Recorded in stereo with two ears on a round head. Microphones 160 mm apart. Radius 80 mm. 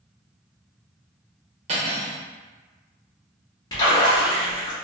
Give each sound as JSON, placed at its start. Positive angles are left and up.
{"t": 1.7, "sound": "cutlery clinking", "side_deg": -35, "distance_m": 0.9}
{"t": 3.7, "sound": "a splash", "side_deg": 20, "distance_m": 1.1}